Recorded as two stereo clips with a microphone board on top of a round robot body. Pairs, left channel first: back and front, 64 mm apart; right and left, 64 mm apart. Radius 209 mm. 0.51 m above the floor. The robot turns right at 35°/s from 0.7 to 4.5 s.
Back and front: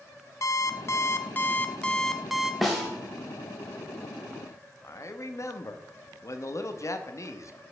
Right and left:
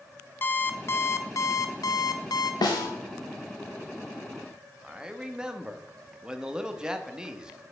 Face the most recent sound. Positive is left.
turn(degrees=165)